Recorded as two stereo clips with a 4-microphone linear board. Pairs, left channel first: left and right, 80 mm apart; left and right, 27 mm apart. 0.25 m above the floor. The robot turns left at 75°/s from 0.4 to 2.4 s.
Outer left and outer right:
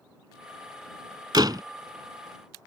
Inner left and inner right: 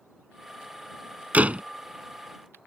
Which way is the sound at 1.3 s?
65° right (ahead or behind).